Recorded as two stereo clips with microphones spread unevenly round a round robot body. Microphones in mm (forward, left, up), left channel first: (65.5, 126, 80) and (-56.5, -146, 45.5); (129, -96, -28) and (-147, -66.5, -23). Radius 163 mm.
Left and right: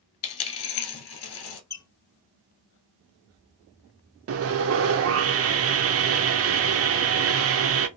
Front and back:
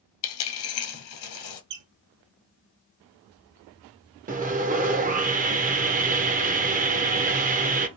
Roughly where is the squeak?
Behind left.